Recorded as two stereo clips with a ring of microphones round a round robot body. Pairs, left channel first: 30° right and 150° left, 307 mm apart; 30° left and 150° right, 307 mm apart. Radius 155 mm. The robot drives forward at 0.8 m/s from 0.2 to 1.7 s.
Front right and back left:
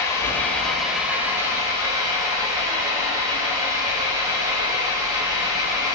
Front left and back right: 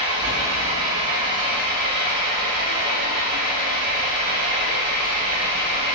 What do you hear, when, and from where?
0.0 s an engine running: 110° right, 2.5 m; by 6.0 s 130° right, 3 m